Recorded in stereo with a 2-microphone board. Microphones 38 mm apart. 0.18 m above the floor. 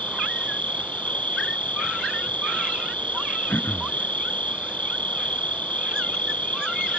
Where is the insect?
40° left (ahead or behind).